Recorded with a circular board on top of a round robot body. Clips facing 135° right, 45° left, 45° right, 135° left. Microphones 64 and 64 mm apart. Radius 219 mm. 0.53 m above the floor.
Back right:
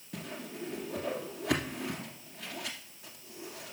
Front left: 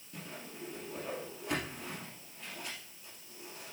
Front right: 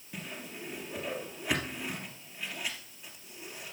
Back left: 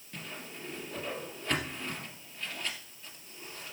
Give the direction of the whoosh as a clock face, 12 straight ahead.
4 o'clock.